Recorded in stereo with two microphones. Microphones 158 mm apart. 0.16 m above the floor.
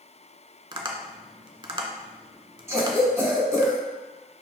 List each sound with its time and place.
0.7 s tapping: 30° right (ahead or behind), 0.6 m
2.7 s a cough: 20° right (ahead or behind), 1.0 m